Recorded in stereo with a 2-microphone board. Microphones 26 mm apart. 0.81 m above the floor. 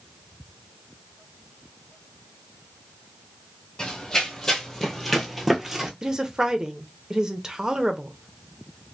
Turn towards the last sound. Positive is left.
turn(degrees=-25)  # may be behind; listen again after turning